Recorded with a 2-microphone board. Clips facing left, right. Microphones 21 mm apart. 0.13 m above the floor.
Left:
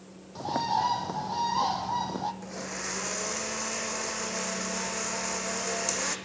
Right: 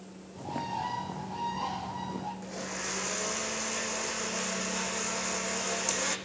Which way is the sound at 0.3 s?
65° left (ahead or behind).